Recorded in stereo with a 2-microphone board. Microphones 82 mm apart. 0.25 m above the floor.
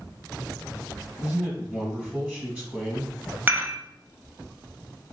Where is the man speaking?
15° right (ahead or behind), 1.8 m.